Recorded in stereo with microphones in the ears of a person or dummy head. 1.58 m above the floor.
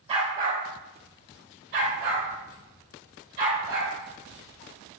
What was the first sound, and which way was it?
A dog barking, 30° right (ahead or behind).